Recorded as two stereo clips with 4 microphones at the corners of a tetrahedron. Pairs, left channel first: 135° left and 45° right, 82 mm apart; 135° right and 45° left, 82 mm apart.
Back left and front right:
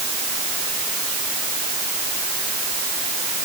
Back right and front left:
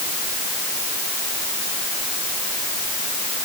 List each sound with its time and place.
Only background noise.